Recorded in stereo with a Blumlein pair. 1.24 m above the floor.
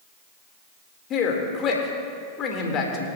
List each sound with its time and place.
1.1 s a man speaking: 30° left, 2 m